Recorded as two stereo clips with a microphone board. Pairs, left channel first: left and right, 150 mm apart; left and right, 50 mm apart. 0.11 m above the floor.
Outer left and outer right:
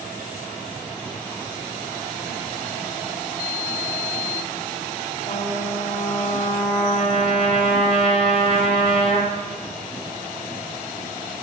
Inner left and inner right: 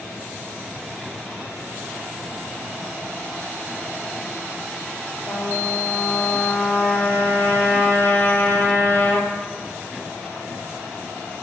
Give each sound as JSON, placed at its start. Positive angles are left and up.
{"t": 5.3, "sound": "a trumpet", "side_deg": 40, "distance_m": 1.2}